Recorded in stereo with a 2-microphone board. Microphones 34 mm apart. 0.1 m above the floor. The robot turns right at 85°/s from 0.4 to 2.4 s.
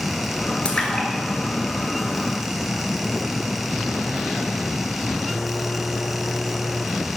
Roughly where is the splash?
Left.